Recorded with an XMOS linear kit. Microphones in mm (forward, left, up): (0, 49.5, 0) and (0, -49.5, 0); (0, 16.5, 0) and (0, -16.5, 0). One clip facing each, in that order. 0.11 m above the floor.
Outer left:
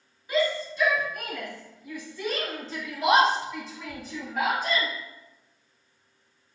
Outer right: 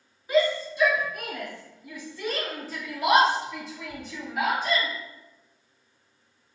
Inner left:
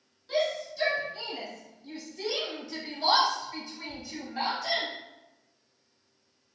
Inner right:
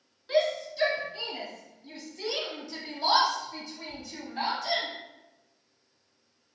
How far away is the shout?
About 1.6 m.